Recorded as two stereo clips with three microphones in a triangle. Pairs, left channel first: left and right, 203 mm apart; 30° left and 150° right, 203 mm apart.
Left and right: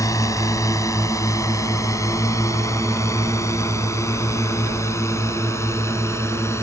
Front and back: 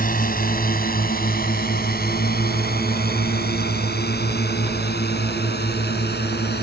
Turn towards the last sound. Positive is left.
turn(degrees=15)